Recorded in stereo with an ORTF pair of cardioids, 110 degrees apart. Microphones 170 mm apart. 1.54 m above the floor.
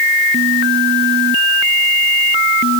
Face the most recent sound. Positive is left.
No sound to turn to.